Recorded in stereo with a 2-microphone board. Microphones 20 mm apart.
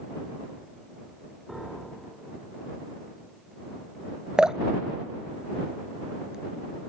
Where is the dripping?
35° right (ahead or behind).